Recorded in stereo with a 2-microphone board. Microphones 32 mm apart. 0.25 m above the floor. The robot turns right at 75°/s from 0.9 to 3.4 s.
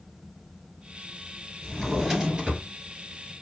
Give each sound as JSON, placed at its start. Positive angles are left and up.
{"t": 1.6, "sound": "a drawer", "azimuth_deg": 145, "distance_m": 1.7}